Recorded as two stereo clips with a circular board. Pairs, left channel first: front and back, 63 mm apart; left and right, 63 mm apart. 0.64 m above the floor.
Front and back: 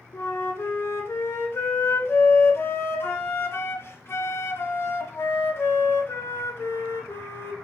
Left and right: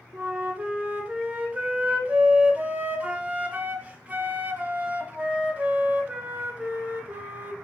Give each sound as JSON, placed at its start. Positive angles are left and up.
{"t": 0.1, "sound": "a flute", "azimuth_deg": -30, "distance_m": 0.6}